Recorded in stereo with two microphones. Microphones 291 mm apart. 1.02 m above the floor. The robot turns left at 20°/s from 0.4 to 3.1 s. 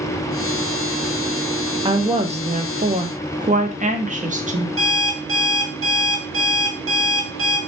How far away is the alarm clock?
About 1.1 m.